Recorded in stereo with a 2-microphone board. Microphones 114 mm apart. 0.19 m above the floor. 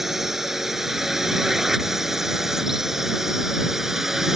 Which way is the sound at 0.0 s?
Centre (ahead or behind).